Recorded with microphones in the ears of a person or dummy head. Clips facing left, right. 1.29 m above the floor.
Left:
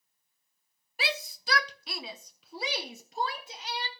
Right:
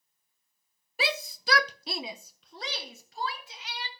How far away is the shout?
About 0.8 m.